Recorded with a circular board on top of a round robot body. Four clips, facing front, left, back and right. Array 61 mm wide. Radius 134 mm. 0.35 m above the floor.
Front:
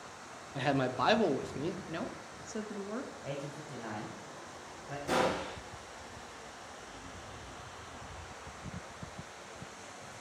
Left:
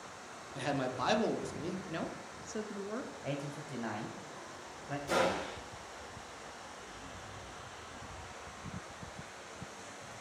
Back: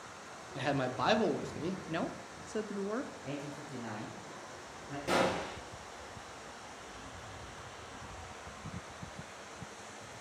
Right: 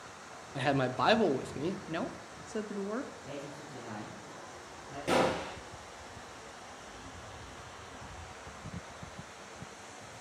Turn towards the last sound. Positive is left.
turn(degrees=-110)